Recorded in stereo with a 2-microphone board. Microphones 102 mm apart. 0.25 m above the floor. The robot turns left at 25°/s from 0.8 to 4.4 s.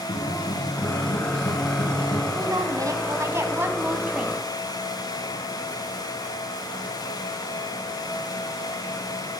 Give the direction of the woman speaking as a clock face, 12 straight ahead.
4 o'clock.